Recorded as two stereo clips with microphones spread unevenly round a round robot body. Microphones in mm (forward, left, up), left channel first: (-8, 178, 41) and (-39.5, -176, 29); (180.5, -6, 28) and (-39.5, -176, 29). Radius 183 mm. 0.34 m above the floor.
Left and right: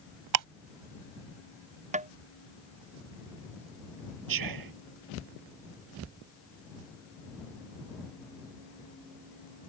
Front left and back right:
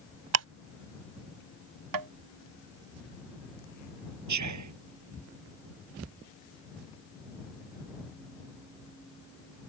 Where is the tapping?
165° right.